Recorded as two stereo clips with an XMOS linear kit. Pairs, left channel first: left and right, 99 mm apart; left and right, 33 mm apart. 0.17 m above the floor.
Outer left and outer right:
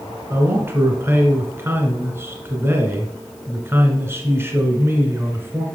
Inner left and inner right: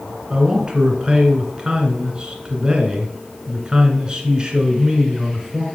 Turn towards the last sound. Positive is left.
turn(degrees=-25)  # may be behind; listen again after turning